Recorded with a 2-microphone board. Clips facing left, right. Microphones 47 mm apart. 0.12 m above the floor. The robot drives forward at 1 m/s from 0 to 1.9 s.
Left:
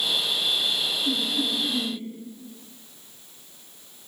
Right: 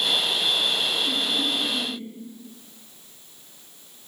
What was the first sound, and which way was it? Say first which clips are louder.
Laughter: right 1 dB; 45° left (ahead or behind).